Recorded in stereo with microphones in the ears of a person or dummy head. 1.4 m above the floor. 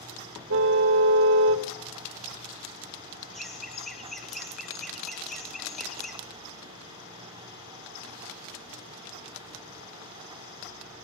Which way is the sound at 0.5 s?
65° right (ahead or behind).